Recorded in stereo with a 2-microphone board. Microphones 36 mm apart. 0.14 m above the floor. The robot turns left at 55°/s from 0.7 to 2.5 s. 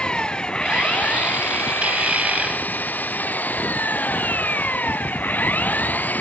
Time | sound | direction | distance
0.0 | an engine running | 155° left | ?